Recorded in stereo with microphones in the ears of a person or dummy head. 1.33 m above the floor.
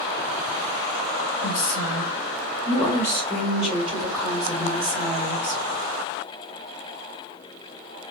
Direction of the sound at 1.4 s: 75° left (ahead or behind).